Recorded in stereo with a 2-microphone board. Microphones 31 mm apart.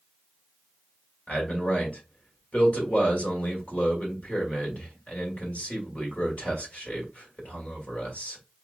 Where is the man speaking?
60° left (ahead or behind), 2 m.